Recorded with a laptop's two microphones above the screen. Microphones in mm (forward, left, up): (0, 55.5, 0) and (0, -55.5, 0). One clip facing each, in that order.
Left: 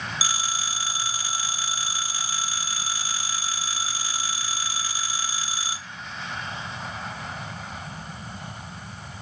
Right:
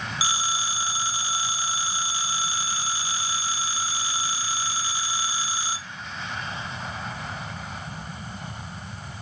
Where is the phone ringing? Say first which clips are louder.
Right 4 dB; 25° right (ahead or behind), 0.8 m.